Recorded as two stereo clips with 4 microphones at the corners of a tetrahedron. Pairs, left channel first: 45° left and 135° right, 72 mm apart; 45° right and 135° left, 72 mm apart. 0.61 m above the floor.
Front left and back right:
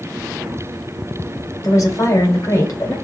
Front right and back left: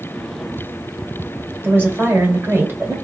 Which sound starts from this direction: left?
A woman speaking, at 1.6 s.